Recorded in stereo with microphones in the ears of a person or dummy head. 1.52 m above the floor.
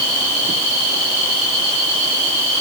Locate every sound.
Only background noise.